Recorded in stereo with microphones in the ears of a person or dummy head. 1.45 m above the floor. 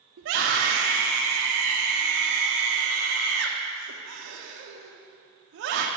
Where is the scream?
70° right (ahead or behind), 0.9 m.